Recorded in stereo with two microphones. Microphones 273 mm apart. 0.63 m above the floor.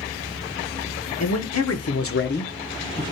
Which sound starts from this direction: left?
A man speaking, at 1.2 s.